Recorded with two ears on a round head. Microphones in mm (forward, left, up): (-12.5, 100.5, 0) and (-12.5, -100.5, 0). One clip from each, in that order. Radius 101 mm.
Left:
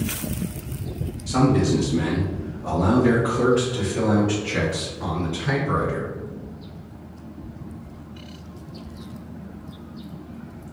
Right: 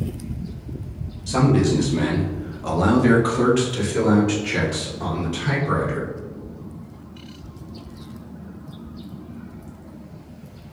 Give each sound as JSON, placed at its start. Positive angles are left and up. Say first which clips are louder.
{"t": 1.3, "sound": "a man speaking", "louder": "right 1 dB", "side_deg": -5, "distance_m": 1.1}